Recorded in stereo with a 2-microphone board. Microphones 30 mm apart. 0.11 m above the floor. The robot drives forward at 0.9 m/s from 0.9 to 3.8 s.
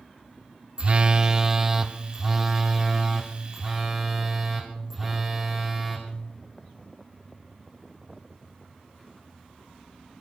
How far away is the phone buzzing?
About 0.6 m.